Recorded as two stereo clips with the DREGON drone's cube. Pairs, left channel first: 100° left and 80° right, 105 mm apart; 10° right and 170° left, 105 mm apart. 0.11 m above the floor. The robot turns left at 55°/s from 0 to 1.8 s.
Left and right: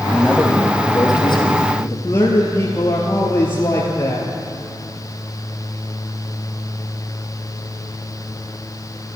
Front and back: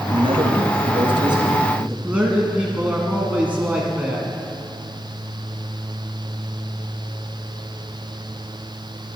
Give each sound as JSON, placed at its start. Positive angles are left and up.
{"t": 0.1, "sound": "a man speaking", "azimuth_deg": -160, "distance_m": 2.5}
{"t": 2.0, "sound": "a man speaking", "azimuth_deg": 110, "distance_m": 1.6}